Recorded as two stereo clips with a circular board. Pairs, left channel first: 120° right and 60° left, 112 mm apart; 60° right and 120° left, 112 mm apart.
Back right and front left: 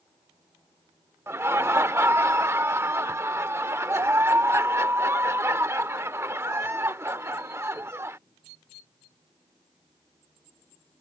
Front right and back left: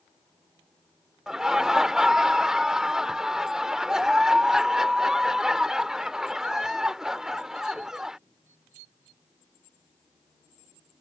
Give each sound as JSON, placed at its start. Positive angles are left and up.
{"t": 1.3, "sound": "laughter", "azimuth_deg": 40}